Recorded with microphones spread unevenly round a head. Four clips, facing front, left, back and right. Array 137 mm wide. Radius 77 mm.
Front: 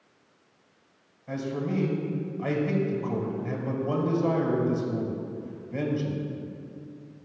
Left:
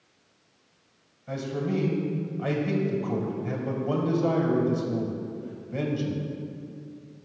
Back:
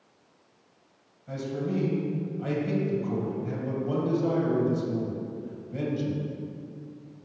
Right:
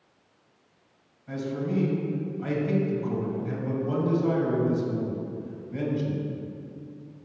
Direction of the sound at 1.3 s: 65° left.